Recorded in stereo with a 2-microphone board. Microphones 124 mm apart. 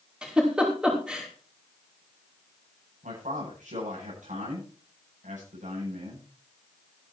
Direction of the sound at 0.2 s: 5° right (ahead or behind).